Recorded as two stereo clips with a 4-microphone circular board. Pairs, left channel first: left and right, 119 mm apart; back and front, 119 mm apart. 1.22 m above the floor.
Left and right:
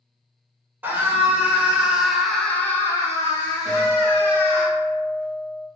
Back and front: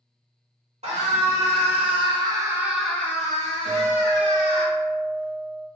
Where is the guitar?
45° right, 1.6 m.